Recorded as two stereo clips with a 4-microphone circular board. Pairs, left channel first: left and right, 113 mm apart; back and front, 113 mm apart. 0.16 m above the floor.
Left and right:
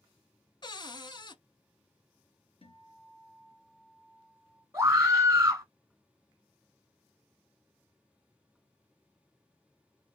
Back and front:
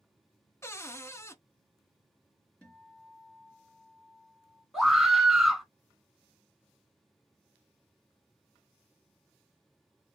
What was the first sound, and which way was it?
A cupboard door, 120° left.